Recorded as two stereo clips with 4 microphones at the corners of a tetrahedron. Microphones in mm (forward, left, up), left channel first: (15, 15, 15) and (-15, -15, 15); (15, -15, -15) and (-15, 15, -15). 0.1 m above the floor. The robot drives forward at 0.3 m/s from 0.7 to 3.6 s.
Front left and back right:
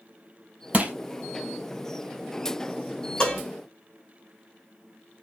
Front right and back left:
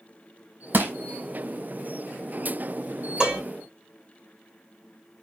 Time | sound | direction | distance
0.7 | crushing | 170° left | 0.6 m
3.2 | dishes clattering | 95° left | 1.1 m